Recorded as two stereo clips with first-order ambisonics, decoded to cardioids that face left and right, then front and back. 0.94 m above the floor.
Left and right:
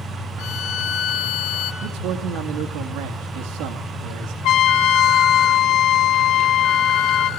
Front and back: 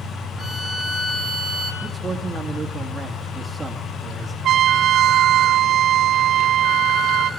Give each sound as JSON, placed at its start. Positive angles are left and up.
{"t": 0.4, "sound": "a violin", "azimuth_deg": 60, "distance_m": 3.0}
{"t": 1.8, "sound": "a man speaking", "azimuth_deg": -100, "distance_m": 2.0}
{"t": 4.4, "sound": "a trumpet", "azimuth_deg": 125, "distance_m": 1.0}